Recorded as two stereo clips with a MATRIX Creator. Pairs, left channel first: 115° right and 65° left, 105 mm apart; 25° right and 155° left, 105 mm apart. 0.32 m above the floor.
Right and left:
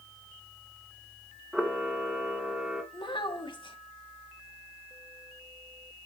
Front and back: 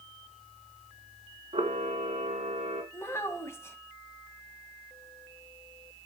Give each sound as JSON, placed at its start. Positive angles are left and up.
{"t": 1.5, "sound": "a camera shutter", "azimuth_deg": 150, "distance_m": 1.7}
{"t": 2.9, "sound": "a child speaking", "azimuth_deg": -85, "distance_m": 1.8}